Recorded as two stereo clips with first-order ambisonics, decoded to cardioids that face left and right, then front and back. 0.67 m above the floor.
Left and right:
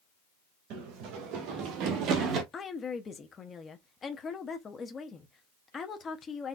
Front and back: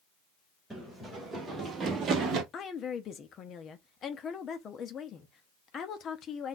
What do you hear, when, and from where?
0.7 s running footsteps: 90° right, 2.5 m; by 2.4 s 140° right, 1.5 m
2.5 s a woman speaking: 35° left, 0.6 m